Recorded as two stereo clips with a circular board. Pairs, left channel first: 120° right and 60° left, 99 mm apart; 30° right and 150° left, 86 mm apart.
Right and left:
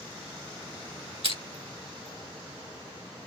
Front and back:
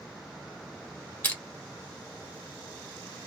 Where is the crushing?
40° left, 2.0 m.